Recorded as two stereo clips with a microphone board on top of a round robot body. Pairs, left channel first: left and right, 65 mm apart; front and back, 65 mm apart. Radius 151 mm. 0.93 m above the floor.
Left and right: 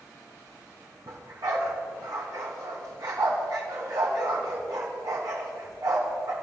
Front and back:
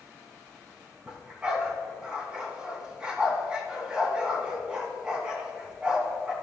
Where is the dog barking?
105° right, 3.5 m.